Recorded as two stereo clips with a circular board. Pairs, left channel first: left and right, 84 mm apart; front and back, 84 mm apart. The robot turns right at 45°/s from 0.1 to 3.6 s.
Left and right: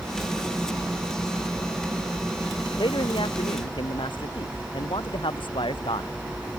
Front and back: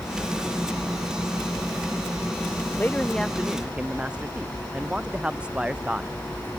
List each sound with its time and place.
2.8 s a man speaking: 65° left; by 6.1 s 100° left